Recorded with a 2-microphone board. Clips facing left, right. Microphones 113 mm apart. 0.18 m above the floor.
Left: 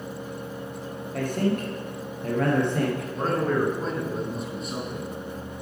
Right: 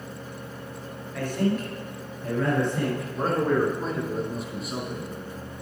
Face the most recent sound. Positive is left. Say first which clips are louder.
# right 2 dB
turn(degrees=0)  # may be behind; listen again after turning